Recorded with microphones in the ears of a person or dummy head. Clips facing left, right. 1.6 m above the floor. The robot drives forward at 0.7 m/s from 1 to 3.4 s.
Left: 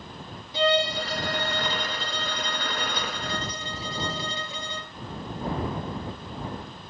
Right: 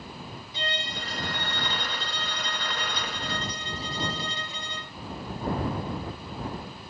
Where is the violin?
60° left (ahead or behind); by 4.9 s 75° left (ahead or behind).